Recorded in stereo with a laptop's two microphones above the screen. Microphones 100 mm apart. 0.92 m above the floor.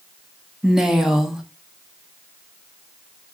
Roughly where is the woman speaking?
Centre.